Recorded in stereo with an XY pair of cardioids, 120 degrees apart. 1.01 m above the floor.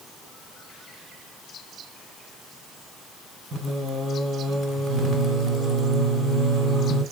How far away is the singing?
About 1.5 m.